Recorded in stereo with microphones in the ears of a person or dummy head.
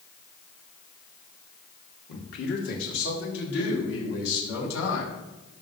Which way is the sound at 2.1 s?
55° left (ahead or behind).